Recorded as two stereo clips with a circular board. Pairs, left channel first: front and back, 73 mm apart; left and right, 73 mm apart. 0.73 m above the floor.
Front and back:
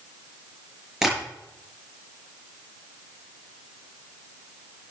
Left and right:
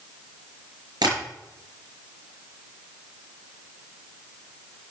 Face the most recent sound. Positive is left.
turn(degrees=-95)